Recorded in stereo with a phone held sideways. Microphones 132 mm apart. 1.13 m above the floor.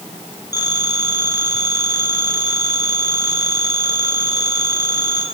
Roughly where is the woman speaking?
I don't hear a woman speaking.